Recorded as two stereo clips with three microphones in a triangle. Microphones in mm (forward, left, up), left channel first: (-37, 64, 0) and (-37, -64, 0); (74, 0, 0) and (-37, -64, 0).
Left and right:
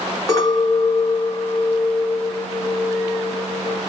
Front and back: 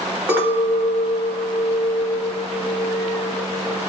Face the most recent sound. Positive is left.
turn(degrees=135)